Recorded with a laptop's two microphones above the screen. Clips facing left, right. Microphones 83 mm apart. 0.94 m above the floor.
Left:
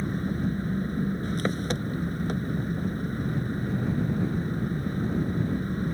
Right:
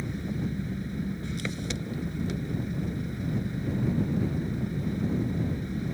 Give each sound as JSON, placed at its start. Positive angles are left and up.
{"t": 0.0, "sound": "an engine running", "side_deg": 45}